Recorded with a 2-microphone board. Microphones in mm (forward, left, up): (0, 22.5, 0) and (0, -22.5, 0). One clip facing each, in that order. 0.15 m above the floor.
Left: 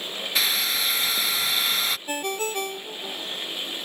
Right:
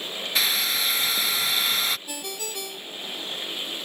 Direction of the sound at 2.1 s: 45° left (ahead or behind).